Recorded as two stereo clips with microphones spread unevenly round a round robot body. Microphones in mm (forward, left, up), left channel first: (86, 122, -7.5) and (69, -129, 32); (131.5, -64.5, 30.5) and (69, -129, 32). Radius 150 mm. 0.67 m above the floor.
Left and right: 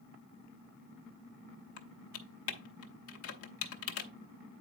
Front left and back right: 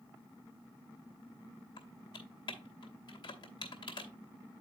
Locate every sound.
1.8 s typing on a keyboard: 85° left, 0.9 m